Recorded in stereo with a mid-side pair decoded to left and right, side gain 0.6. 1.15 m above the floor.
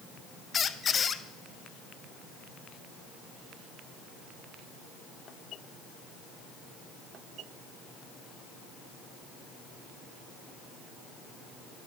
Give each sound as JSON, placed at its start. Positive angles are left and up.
{"t": 0.5, "sound": "a squeak", "azimuth_deg": 35, "distance_m": 0.7}